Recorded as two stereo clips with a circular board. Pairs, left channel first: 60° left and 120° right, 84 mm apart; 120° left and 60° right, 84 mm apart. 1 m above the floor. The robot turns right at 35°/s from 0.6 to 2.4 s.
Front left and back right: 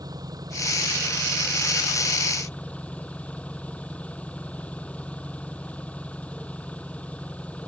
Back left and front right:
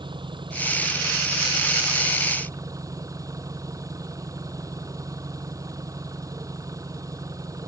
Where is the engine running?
75° right; by 7.7 s 15° right.